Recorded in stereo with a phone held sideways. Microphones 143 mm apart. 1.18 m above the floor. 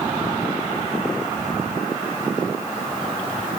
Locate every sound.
Only background noise.